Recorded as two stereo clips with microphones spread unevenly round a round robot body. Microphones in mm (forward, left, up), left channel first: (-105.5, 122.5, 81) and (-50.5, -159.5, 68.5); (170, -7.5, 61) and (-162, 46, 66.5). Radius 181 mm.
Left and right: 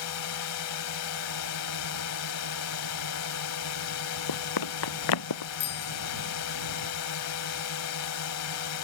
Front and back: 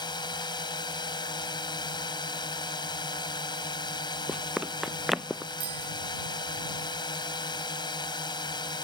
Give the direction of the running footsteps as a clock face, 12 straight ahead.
9 o'clock.